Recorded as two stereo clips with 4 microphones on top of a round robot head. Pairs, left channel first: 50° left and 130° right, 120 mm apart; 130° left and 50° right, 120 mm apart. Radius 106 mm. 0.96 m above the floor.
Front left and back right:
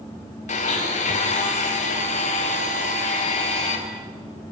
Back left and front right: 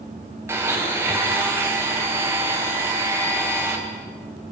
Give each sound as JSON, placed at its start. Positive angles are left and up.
{"t": 0.5, "sound": "a blender", "azimuth_deg": 20, "distance_m": 4.0}